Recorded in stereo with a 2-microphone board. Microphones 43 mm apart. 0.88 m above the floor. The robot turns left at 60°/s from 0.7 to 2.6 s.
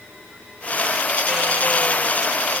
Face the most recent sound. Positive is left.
No sound to turn to.